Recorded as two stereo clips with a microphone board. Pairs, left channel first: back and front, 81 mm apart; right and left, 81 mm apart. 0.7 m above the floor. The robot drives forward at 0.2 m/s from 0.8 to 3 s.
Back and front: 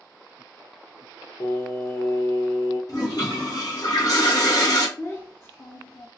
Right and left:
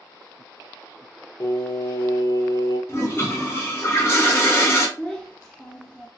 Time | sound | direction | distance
1.4 | singing | 135° right | 0.9 m
2.9 | a toilet flushing | 145° right | 1.0 m
5.0 | a child speaking | 160° right | 0.6 m